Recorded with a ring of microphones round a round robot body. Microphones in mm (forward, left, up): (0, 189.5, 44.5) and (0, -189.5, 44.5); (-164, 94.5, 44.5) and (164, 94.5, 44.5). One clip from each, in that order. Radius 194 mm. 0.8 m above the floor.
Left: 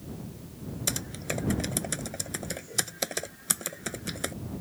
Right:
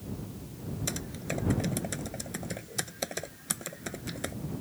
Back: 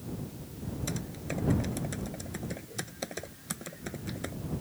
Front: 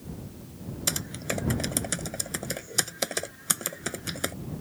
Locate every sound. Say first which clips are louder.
0.9 s typing on a keyboard: left 4 dB, front 10 dB; 20° left